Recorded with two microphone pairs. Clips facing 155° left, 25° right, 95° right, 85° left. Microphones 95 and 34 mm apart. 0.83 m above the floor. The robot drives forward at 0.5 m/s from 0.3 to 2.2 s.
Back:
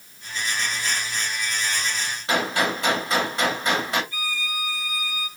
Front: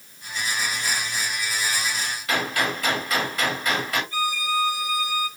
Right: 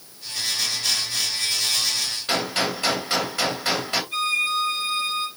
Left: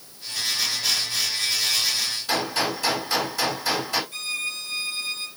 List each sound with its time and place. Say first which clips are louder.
2.3 s a gunshot: back 2 dB, right 1 dB; 145° right, 3 m
4.1 s a violin: front 6 dB, right 7 dB; 90° right, 3 m